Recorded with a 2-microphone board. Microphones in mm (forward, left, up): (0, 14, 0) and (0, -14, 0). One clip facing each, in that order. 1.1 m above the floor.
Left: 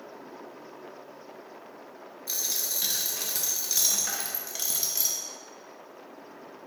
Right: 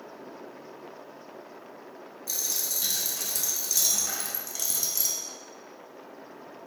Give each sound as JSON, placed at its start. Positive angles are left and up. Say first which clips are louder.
{"t": 2.3, "sound": "a dropped coin", "louder": "even", "side_deg": 30, "distance_m": 0.6}